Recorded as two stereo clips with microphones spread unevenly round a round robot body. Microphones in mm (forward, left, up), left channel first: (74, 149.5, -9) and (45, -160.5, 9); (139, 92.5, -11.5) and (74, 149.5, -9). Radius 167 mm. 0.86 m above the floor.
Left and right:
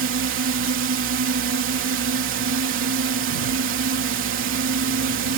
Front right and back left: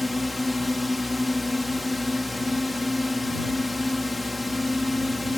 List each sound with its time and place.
0.0 s a drone: 130° right